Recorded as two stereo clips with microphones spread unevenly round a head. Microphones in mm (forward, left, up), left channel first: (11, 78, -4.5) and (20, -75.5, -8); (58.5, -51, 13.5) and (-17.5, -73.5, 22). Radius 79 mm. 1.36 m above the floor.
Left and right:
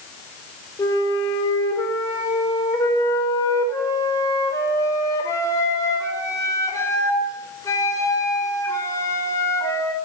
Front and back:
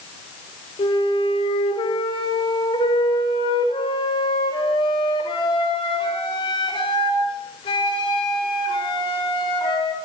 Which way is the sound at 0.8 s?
25° left.